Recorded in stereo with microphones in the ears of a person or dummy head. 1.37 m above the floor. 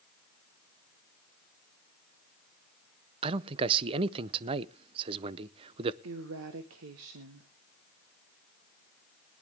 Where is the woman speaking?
75° right (ahead or behind), 1.1 m.